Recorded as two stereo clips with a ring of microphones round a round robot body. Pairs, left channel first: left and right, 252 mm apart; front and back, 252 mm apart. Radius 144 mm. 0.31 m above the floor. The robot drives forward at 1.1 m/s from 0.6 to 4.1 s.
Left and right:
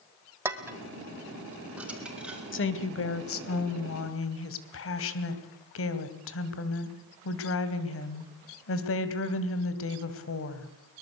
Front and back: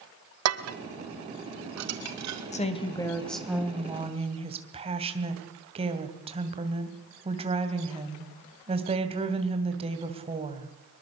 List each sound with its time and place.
0.5 s dishes clattering: 170° right, 1.5 m; by 2.4 s 175° right, 3.5 m
2.5 s a woman speaking: 60° left, 2.5 m; by 10.7 s 115° left, 2 m